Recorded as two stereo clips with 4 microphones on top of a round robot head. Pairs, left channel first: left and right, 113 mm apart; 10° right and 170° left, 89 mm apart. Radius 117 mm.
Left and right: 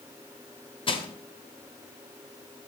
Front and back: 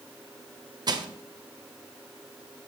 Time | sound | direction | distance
0.9 | crushing | 130° left | 1.4 m